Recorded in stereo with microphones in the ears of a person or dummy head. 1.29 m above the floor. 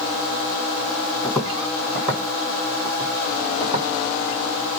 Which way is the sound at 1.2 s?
Centre (ahead or behind).